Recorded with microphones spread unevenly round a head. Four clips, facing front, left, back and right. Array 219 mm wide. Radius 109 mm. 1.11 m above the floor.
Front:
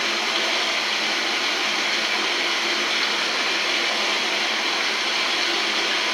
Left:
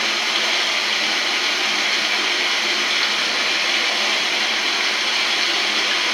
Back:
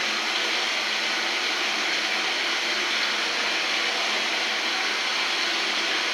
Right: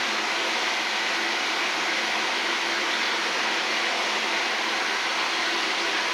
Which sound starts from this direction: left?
Running water, at 0.0 s.